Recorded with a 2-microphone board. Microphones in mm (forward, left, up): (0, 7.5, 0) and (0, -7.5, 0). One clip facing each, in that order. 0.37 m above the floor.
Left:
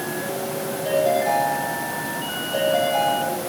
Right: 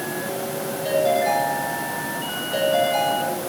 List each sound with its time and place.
0.8 s a ringtone: 20° right (ahead or behind), 9.5 m